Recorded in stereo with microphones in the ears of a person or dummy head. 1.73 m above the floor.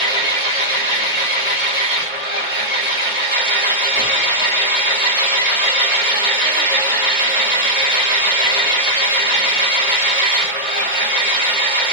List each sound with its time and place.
0.0 s an engine running: 35° right (ahead or behind), 1.6 m